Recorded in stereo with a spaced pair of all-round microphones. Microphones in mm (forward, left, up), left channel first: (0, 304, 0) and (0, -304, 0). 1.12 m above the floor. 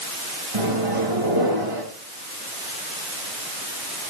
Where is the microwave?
65° right (ahead or behind), 6 m.